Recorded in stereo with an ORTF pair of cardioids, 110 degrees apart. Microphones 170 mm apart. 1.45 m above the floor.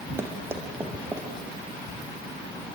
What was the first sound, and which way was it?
Running footsteps, 15° right.